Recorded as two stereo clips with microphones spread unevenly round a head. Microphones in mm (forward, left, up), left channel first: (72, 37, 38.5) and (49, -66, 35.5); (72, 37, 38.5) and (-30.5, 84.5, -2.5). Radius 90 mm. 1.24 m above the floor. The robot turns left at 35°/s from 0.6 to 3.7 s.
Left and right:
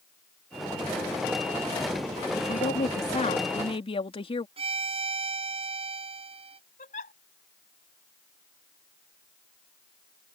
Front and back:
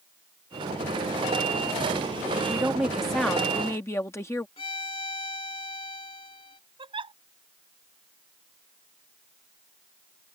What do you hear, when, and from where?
2.4 s a woman speaking: 90° left; by 4.5 s 45° left
4.6 s a violin: 80° right
6.8 s a giggle: 110° left